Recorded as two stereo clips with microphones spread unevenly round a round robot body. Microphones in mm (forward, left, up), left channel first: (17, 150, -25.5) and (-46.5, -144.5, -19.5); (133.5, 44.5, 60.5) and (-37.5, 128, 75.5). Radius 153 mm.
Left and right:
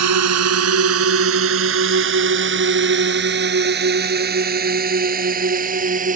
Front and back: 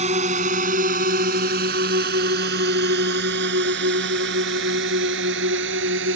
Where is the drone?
140° right; by 6.2 s 165° right.